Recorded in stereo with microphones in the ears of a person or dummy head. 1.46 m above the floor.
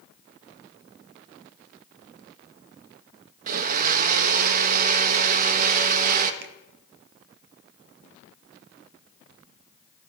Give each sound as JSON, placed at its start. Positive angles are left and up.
{"t": 3.5, "sound": "a blender", "side_deg": -50, "distance_m": 1.2}
{"t": 6.4, "sound": "a finger snap", "side_deg": -65, "distance_m": 1.3}